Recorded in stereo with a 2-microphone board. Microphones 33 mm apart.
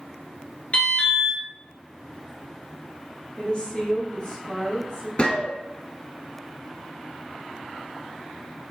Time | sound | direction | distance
0.7 | an alarm | 45° left (ahead or behind) | 1.3 m
3.4 | a woman speaking | 35° left (ahead or behind) | 1.6 m
5.2 | a gunshot | 35° left (ahead or behind) | 0.7 m